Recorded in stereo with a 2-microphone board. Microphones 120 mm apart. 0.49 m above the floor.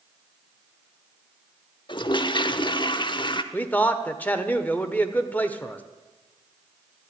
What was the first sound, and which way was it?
A toilet flushing, 45° left (ahead or behind).